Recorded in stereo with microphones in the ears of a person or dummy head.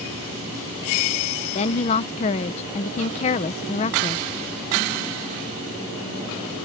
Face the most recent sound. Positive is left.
turn(degrees=30)  # may be behind; listen again after turning